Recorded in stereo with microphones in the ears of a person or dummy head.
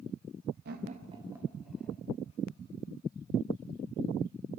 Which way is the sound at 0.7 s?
55° right (ahead or behind).